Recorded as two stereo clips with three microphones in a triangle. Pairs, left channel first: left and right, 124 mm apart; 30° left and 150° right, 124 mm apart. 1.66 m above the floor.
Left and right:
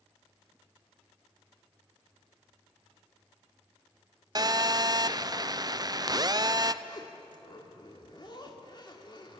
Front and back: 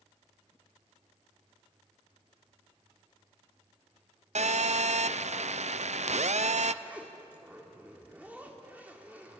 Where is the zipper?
135° left, 2 m.